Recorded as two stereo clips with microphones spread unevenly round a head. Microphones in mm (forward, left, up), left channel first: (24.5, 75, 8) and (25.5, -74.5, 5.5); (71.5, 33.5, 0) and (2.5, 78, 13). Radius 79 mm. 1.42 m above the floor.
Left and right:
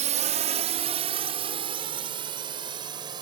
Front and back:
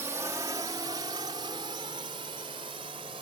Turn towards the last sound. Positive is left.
turn(degrees=-155)